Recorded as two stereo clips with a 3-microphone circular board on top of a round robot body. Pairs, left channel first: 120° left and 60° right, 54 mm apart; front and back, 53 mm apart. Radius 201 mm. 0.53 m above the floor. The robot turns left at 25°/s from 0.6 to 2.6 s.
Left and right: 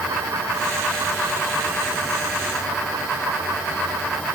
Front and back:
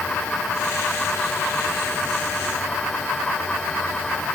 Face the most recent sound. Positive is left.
No sound to turn to.